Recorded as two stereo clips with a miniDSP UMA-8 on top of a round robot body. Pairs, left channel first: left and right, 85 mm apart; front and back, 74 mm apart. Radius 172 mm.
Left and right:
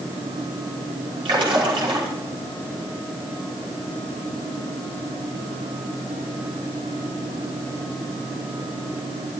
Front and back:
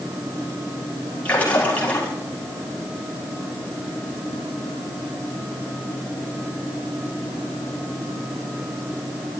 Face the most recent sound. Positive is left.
turn(degrees=-70)